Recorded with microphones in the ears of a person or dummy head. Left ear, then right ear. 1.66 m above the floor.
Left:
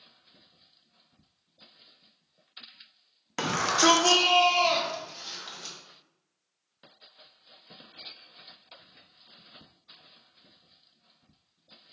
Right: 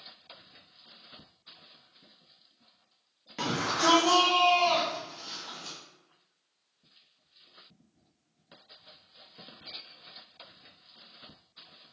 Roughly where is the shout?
Left.